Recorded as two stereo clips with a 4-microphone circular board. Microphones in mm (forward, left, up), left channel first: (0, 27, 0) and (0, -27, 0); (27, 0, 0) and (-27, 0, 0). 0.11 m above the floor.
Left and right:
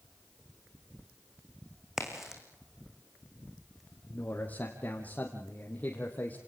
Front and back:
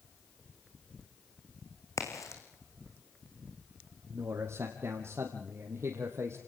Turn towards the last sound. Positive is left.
turn(degrees=150)